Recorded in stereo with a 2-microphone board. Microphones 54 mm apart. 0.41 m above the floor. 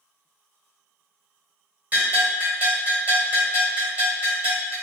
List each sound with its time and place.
1.9 s a bell: 35° right (ahead or behind), 1.8 m